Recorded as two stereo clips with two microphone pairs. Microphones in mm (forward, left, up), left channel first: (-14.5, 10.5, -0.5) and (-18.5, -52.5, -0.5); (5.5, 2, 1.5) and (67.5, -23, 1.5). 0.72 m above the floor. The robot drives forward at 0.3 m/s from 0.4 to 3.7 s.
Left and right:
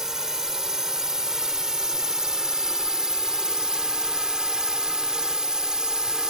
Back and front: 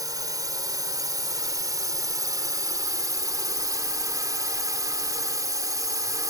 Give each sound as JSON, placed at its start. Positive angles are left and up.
{"t": 0.0, "sound": "a drone", "azimuth_deg": -15}